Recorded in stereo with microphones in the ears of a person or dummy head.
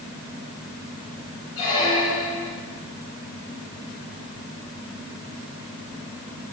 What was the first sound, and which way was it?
A squeak, 25° left (ahead or behind).